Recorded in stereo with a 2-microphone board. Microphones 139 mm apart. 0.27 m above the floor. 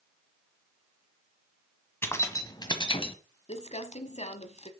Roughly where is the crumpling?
Left.